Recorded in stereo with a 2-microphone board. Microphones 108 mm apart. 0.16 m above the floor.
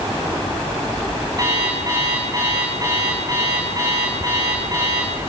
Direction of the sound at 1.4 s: 35° right (ahead or behind).